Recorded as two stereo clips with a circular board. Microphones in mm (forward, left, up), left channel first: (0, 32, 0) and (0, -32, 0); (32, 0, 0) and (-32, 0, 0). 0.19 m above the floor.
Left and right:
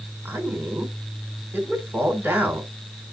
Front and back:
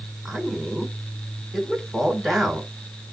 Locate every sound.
0.2 s a man speaking: 90° right, 2 m